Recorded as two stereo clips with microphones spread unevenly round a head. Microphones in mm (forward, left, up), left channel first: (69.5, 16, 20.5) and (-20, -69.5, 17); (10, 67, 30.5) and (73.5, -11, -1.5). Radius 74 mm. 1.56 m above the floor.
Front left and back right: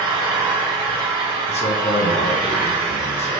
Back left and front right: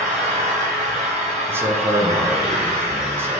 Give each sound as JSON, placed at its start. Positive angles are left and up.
{"t": 0.0, "sound": "an engine running", "azimuth_deg": -85, "distance_m": 1.8}
{"t": 1.5, "sound": "a man speaking", "azimuth_deg": 25, "distance_m": 0.9}